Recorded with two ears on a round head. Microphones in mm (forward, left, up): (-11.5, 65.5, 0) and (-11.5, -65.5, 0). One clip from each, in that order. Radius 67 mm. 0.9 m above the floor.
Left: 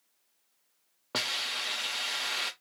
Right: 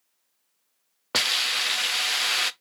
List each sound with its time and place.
1.1 s a hiss: 55° right (ahead or behind), 0.5 m